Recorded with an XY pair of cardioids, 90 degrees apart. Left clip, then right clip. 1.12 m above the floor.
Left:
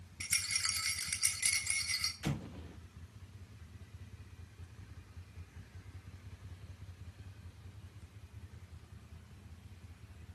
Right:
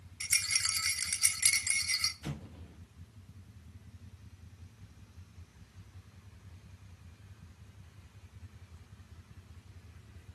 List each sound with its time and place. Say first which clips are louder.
0.2 s a rattle: right 4 dB; 35° right, 2.5 m
2.2 s an explosion: left 4 dB; 35° left, 1.6 m